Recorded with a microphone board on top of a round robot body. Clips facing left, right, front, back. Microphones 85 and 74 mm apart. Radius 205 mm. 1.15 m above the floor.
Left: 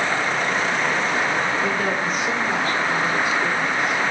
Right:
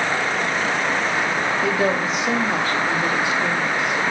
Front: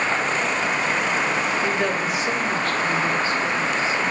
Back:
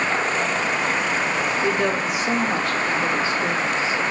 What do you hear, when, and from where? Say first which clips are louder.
1.6 s a woman speaking: right 2 dB, back 1 dB; 90° right, 3.5 m; by 4.0 s 115° right, 2.5 m